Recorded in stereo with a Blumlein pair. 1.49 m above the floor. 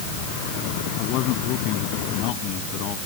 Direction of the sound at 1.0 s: 40° left.